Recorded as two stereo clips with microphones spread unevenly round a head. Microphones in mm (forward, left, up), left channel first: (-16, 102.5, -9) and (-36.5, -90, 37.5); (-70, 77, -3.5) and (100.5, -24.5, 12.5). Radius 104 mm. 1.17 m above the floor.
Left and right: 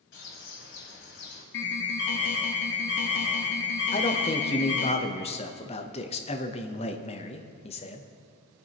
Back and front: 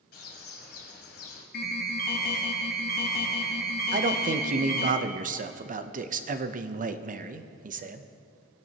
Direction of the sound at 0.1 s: 110° left.